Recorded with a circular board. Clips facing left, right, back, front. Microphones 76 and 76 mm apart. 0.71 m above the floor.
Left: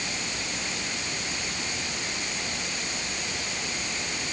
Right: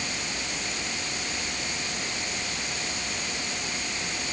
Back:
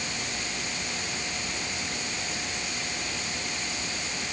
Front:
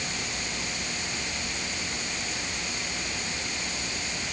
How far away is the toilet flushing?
I don't hear a toilet flushing.